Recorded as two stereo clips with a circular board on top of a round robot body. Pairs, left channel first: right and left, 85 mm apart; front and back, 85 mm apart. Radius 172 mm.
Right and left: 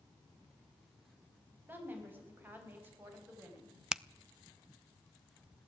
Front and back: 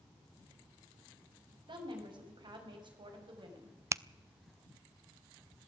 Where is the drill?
I don't hear a drill.